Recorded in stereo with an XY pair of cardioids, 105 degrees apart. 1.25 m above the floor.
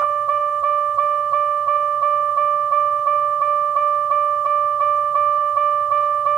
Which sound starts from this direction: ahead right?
A vehicle, at 0.0 s.